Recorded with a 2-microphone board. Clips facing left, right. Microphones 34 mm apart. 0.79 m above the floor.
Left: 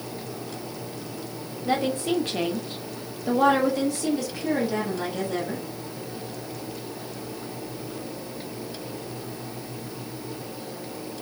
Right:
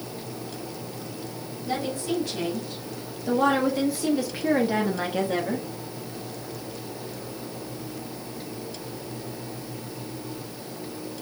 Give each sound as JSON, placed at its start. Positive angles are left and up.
{"t": 1.6, "sound": "a woman speaking", "side_deg": 50, "distance_m": 1.3}